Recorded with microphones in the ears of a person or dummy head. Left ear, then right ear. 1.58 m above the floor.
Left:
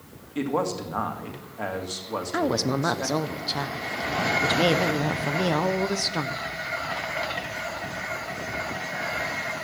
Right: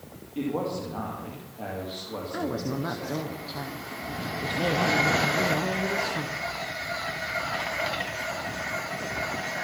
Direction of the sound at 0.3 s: 55° left (ahead or behind).